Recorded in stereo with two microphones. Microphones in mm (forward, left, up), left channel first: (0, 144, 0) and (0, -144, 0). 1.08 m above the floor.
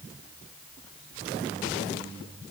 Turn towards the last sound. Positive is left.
No sound to turn to.